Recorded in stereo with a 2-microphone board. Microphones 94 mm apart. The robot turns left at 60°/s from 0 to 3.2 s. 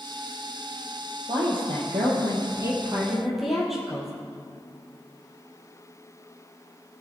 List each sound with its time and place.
1.3 s a woman speaking: 65° right, 3.5 m; by 4.1 s straight behind, 3.5 m